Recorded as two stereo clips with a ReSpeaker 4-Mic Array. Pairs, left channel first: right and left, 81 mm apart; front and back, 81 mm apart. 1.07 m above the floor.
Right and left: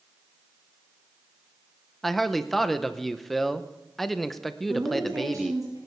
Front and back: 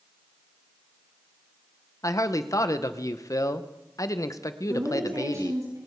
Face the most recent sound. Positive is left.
turn(degrees=140)